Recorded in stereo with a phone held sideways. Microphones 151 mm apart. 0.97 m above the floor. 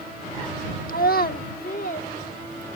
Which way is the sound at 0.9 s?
65° left (ahead or behind).